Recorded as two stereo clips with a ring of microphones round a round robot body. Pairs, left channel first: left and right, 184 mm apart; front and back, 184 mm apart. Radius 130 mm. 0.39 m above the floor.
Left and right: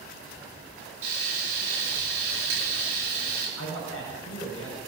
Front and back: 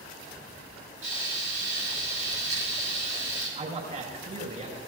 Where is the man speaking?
130° left, 5 m.